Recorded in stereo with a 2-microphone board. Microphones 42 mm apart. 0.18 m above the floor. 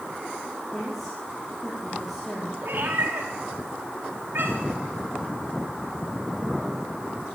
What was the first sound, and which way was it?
A woman speaking, centre (ahead or behind).